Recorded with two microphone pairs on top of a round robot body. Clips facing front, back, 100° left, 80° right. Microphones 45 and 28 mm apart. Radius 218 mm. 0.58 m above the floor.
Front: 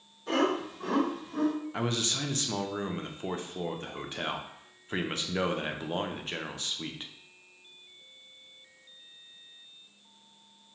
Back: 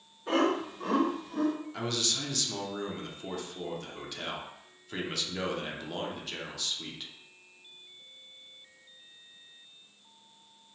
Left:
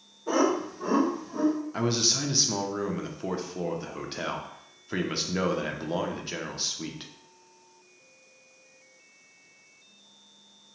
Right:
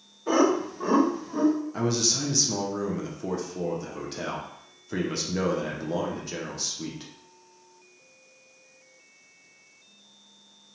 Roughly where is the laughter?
Right.